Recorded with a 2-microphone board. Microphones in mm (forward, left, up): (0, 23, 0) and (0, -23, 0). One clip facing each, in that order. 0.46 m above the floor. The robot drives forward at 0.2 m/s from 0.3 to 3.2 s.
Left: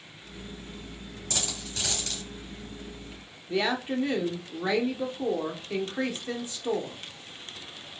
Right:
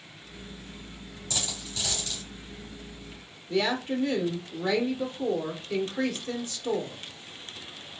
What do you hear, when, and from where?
1.3 s a dropped coin: 45° left (ahead or behind), 3 m; by 2.2 s 50° left (ahead or behind), 3 m
3.5 s a woman speaking: 15° left (ahead or behind), 0.7 m